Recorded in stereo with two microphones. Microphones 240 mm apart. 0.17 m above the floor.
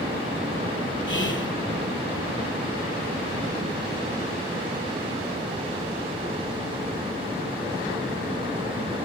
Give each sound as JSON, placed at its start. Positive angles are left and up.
{"t": 1.1, "sound": "whispering", "side_deg": 55, "distance_m": 4.5}